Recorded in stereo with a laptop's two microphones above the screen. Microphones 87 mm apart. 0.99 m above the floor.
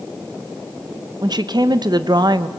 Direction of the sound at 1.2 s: 55° right (ahead or behind).